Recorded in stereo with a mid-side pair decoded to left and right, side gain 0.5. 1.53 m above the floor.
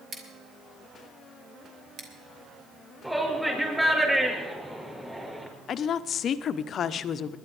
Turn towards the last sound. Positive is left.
turn(degrees=55)